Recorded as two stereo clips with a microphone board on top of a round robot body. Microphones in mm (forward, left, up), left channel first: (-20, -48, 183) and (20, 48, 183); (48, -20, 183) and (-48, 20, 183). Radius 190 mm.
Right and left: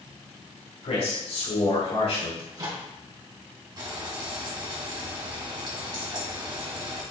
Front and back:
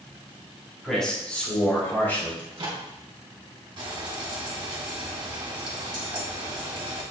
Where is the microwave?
115° left, 3 m.